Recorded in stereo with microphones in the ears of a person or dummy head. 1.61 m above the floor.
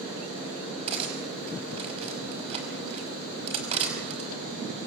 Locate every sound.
0.9 s cutlery clinking: 35° right (ahead or behind), 5 m